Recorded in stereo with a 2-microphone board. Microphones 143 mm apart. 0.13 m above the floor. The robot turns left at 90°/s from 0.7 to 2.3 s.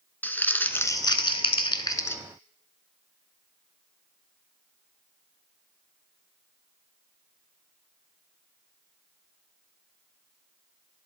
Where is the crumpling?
160° left, 0.5 m; by 2.2 s 20° left, 0.5 m.